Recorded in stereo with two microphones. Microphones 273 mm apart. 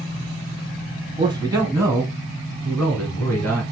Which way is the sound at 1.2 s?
15° right (ahead or behind).